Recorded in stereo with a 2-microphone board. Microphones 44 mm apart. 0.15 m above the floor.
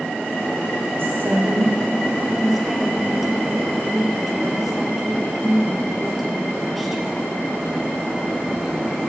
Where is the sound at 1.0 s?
55° right (ahead or behind), 5.5 m.